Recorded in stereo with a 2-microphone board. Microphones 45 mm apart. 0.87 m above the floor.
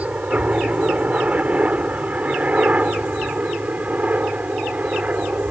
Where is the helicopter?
35° right (ahead or behind).